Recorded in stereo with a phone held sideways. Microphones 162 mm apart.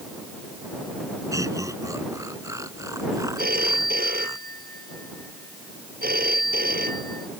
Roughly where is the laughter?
Right.